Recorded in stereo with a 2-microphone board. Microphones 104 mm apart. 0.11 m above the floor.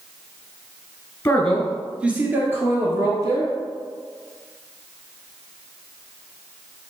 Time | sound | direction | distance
1.2 | a man speaking | 20° left (ahead or behind) | 1.5 m